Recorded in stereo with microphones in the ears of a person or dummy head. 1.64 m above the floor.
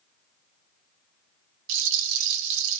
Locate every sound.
1.7 s a rattle: 75° right (ahead or behind), 0.6 m